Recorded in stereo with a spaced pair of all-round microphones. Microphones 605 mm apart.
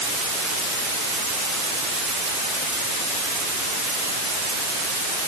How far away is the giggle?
I don't hear a giggle.